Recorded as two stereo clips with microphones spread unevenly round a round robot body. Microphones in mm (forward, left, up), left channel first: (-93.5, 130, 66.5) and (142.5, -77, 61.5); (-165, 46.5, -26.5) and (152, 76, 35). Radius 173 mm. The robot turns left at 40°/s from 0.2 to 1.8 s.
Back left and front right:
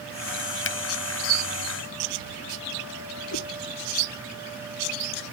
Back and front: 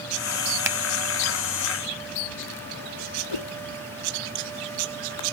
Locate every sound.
0.7 s a finger snap: 90° left; by 0.8 s 85° left
3.3 s a whoosh: 165° right